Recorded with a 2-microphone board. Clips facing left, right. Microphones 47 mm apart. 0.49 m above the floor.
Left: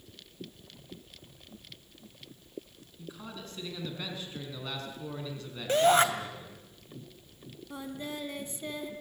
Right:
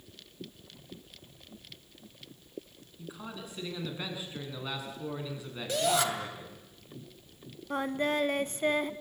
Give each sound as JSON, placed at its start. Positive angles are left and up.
{"t": 3.0, "sound": "a man speaking", "side_deg": -15, "distance_m": 6.0}
{"t": 5.7, "sound": "a shout", "side_deg": 40, "distance_m": 3.0}
{"t": 7.7, "sound": "singing", "side_deg": -65, "distance_m": 0.8}